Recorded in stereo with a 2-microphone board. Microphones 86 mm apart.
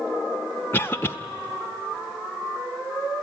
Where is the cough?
25° left (ahead or behind), 0.5 m.